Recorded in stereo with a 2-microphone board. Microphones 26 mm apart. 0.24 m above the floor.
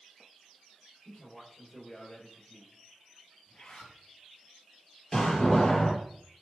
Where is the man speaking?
35° left (ahead or behind), 6 m.